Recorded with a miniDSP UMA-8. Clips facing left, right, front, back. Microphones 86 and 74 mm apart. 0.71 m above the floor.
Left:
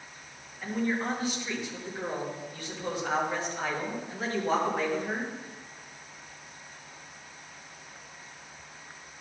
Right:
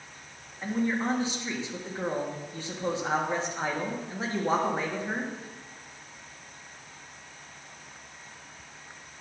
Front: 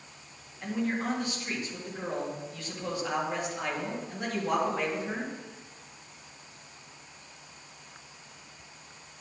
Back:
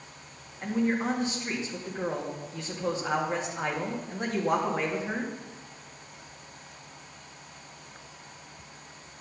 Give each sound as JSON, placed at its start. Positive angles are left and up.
{"t": 0.6, "sound": "a man speaking", "azimuth_deg": -135, "distance_m": 1.3}